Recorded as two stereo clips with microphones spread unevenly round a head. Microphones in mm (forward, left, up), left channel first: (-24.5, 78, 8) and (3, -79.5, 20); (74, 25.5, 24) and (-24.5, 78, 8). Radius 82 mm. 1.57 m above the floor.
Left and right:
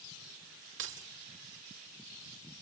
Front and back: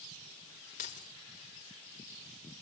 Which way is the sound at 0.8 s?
65° right.